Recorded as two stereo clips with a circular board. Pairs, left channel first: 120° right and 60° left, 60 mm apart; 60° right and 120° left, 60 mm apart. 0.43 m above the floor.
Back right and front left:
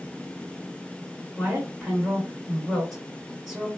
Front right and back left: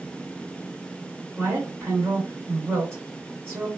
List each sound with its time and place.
1.4 s a woman speaking: 145° left, 1.8 m